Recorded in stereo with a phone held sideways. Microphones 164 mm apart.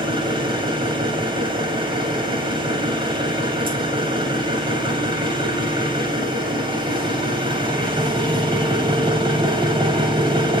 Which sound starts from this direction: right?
An engine running, at 0.0 s.